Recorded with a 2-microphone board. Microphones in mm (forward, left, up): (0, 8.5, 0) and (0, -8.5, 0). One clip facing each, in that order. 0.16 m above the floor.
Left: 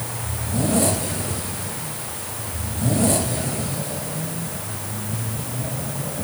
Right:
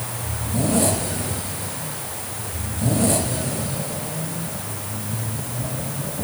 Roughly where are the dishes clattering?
I don't hear dishes clattering.